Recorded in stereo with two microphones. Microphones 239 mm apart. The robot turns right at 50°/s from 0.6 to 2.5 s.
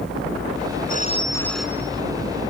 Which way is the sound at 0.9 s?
145° left.